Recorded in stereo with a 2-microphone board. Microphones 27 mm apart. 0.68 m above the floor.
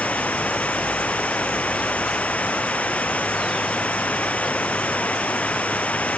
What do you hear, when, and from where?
0.0 s running water: 70° left (ahead or behind)